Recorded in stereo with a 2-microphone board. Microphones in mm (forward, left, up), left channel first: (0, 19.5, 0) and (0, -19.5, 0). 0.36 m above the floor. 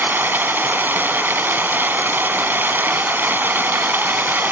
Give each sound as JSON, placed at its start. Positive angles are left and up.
{"t": 0.0, "sound": "running water", "side_deg": -65}